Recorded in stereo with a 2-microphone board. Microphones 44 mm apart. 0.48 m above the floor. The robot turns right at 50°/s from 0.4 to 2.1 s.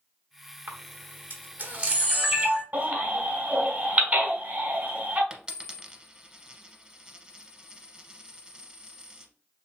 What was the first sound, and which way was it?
A camera shutter, 50° right (ahead or behind).